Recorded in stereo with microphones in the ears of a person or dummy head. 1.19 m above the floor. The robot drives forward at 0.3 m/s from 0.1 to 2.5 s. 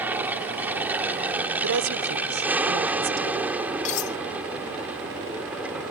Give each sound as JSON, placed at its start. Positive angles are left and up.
{"t": 0.0, "sound": "an aircraft", "side_deg": -5}
{"t": 1.6, "sound": "a woman speaking", "side_deg": -65}
{"t": 3.9, "sound": "cutlery clinking", "side_deg": 35}